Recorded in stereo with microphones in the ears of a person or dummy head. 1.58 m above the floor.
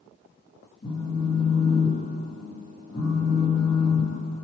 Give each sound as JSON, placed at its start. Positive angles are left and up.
{"t": 0.8, "sound": "a phone buzzing", "side_deg": 30, "distance_m": 3.0}